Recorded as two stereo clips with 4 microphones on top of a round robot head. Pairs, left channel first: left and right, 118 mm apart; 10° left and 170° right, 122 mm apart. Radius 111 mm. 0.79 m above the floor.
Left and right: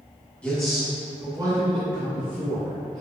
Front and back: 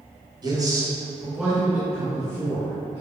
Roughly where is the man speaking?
Behind.